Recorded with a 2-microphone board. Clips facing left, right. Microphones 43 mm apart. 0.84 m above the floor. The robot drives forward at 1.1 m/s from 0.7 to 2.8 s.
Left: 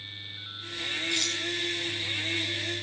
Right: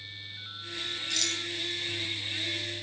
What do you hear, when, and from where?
1.1 s a rattle: 25° left (ahead or behind), 7 m